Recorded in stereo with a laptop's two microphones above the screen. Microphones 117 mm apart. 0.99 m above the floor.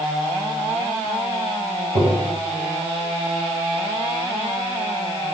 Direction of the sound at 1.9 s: 60° right (ahead or behind).